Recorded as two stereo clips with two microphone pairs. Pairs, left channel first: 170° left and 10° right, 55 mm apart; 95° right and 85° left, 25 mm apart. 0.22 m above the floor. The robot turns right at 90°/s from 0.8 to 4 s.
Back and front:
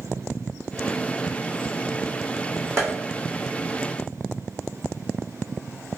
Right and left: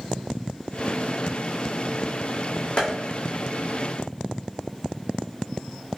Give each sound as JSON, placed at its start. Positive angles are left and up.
{"t": 2.8, "sound": "tapping", "azimuth_deg": -50, "distance_m": 1.5}